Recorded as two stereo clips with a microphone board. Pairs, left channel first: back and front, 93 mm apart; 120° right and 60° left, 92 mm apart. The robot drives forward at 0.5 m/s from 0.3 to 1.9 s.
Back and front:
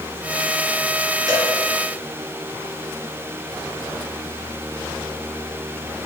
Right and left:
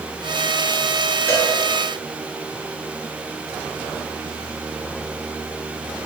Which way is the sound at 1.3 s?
50° right.